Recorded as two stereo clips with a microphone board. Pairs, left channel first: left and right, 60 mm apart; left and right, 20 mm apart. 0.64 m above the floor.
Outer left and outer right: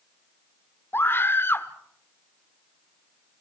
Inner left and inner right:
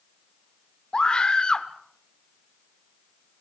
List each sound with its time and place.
0.9 s a scream: 40° left (ahead or behind), 1.5 m